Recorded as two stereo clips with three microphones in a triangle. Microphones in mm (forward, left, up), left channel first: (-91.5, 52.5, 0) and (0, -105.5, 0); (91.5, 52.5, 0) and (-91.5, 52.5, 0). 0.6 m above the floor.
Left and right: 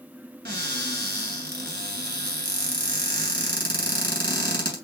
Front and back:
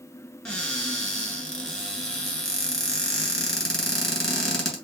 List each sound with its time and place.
0.5 s a cupboard door: 85° right, 2.5 m